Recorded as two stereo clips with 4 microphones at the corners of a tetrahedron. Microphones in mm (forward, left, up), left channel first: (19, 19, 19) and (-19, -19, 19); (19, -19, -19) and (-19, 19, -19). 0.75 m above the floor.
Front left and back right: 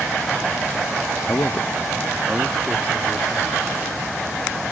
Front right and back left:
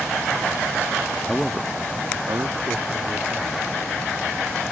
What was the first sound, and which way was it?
A man speaking, 30° left.